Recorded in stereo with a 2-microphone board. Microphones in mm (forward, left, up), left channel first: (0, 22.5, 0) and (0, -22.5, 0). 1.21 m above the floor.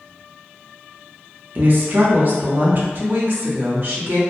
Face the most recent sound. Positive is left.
turn(degrees=-45)  # may be behind; listen again after turning